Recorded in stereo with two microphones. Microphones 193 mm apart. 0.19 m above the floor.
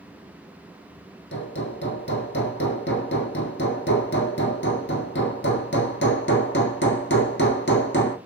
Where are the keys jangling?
I don't hear keys jangling.